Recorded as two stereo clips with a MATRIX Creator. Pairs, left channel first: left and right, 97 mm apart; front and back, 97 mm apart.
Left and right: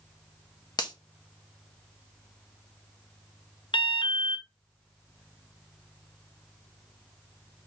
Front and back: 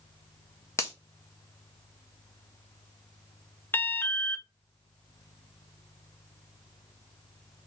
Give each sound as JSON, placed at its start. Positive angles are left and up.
{"t": 0.8, "sound": "a finger snap", "azimuth_deg": 55, "distance_m": 1.2}
{"t": 3.7, "sound": "an alarm", "azimuth_deg": 65, "distance_m": 0.7}